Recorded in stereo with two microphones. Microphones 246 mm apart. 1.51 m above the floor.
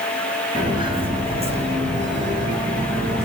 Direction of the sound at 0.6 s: 15° right (ahead or behind).